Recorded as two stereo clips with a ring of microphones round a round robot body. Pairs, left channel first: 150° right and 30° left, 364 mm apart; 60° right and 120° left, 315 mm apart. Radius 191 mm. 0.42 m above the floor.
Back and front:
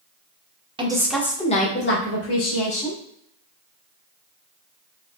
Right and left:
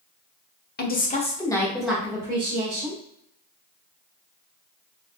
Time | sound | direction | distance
0.8 | a woman speaking | 35° right | 0.9 m